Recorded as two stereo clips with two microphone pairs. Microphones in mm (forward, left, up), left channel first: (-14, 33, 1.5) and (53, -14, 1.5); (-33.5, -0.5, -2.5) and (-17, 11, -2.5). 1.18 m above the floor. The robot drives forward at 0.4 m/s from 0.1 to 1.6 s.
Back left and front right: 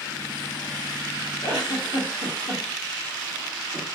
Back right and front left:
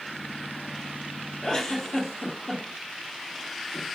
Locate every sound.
1.4 s a giggle: 170° left, 1.2 m